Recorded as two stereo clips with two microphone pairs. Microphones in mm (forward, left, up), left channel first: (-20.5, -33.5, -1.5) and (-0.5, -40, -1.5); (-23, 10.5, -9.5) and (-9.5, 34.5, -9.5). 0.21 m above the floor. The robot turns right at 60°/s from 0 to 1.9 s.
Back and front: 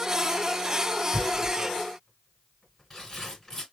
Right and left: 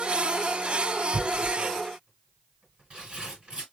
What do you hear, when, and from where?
1.1 s tearing paper: 55° left, 3 m; by 3.6 s 100° left, 3 m